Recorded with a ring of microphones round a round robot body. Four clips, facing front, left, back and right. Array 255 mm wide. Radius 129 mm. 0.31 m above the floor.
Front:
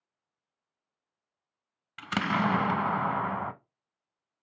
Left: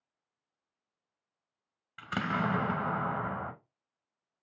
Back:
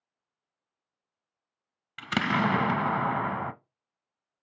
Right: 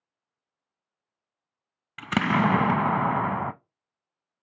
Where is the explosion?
100° right, 0.6 m.